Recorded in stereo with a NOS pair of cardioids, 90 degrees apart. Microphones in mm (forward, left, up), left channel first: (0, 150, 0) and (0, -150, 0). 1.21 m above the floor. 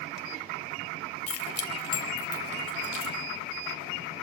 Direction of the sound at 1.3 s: 50° left.